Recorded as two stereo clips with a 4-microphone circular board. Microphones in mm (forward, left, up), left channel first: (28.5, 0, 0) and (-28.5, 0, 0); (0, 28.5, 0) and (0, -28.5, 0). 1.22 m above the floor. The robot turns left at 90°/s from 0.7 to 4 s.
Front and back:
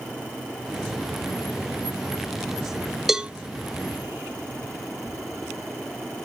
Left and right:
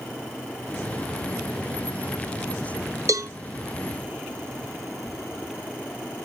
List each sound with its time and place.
3.1 s a cowbell: 95° right, 0.9 m; by 3.3 s 115° right, 0.9 m